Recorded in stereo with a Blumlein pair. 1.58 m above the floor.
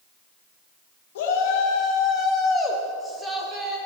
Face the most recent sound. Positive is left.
turn(degrees=-15)